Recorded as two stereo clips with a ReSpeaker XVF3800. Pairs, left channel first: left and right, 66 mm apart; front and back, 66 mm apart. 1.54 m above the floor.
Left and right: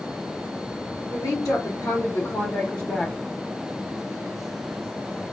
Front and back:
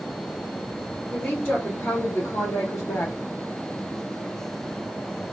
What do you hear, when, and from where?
1.1 s a woman speaking: 70° left, 1.2 m; by 3.1 s 5° left, 0.8 m